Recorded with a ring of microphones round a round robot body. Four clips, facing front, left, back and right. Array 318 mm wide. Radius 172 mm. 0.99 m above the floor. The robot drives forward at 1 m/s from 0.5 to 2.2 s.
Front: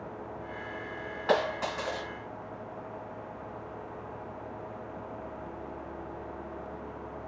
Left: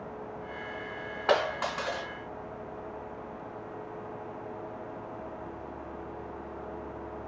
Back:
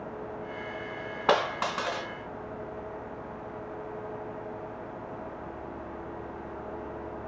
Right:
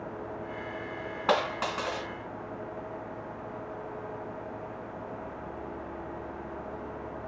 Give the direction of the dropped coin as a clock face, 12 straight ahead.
6 o'clock.